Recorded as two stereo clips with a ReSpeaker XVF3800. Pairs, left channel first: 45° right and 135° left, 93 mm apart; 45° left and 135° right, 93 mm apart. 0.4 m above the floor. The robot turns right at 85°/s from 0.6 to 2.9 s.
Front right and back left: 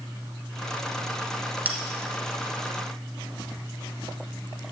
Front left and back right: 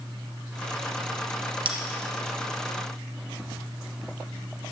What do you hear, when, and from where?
1.6 s a bell: 155° right, 1.1 m; by 1.8 s 145° right, 1.1 m